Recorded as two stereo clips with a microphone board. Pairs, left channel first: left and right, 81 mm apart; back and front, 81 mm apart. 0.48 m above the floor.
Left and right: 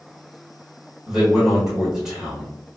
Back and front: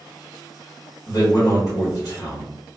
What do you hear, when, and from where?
1.1 s a man speaking: 170° right, 1.4 m